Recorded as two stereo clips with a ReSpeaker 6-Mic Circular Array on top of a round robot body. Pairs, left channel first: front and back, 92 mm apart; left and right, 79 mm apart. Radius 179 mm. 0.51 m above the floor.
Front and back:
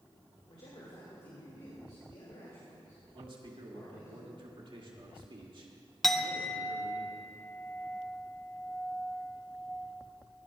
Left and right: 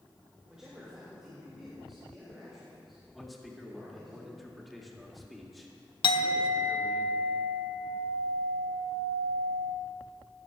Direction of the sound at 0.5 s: 10° right.